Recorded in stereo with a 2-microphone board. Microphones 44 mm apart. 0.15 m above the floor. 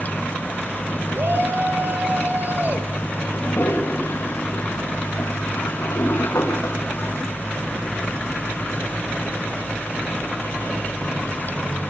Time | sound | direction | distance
1.1 | a shout | 50° right (ahead or behind) | 3.5 m
3.3 | a toilet flushing | 85° left | 7 m